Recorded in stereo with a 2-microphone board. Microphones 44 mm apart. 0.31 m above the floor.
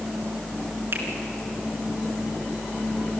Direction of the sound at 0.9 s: 60° right (ahead or behind).